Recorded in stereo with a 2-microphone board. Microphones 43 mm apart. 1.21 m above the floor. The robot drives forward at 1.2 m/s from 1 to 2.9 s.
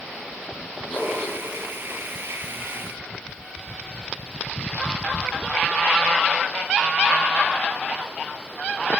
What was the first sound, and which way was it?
A whoosh, 50° left (ahead or behind).